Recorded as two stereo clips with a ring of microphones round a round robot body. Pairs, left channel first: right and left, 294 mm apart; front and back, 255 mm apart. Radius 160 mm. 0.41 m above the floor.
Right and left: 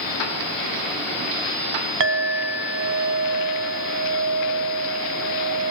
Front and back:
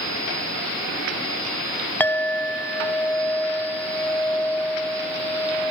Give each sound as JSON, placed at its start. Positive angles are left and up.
{"t": 2.0, "sound": "a clink", "azimuth_deg": 80, "distance_m": 0.7}